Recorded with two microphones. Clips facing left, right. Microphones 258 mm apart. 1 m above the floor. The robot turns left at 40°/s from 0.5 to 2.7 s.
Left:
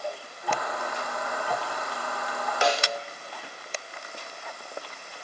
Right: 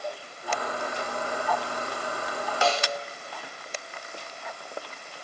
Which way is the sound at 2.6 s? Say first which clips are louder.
Left 1 dB; 20° left (ahead or behind).